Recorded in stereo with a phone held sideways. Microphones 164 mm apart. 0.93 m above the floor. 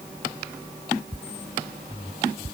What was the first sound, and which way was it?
Only background noise.